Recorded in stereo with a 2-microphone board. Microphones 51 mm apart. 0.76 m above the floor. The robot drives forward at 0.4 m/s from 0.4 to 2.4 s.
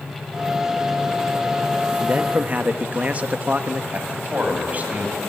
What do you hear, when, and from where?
2.0 s a man speaking: 30° right (ahead or behind), 1.1 m
3.9 s a man speaking: 30° right (ahead or behind), 4 m